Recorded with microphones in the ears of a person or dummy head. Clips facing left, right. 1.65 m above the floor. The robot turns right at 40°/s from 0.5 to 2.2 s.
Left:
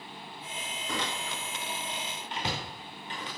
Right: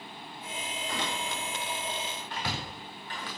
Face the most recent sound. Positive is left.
turn(degrees=20)  # may be behind; listen again after turning